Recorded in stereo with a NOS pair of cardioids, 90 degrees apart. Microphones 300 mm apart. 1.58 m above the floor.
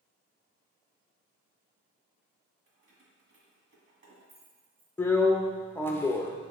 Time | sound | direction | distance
2.7 | keys jangling | 45° right | 1.6 m
5.0 | a drill | 5° left | 0.5 m